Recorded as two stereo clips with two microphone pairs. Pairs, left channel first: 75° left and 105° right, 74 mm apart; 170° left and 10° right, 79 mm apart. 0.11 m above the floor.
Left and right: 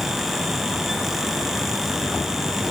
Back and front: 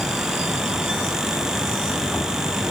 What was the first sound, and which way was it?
Only background noise.